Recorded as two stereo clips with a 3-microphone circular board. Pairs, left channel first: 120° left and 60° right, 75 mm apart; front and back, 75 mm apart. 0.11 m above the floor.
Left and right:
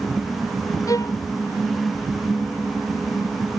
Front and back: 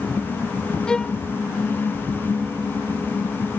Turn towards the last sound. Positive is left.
turn(degrees=80)